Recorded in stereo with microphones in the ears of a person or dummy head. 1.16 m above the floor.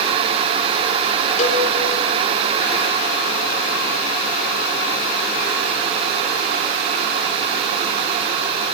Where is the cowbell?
35° left (ahead or behind), 3.5 m.